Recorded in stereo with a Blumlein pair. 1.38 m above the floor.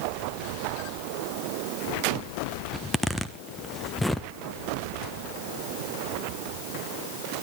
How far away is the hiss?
No hiss in this recording.